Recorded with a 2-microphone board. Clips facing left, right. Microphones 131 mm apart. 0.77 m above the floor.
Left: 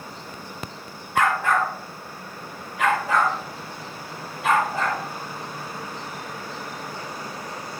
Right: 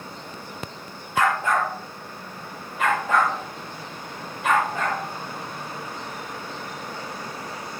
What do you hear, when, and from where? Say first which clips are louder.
1.1 s a dog barking: left 1 dB; 60° left (ahead or behind), 2 m; by 5.0 s 75° left (ahead or behind), 6 m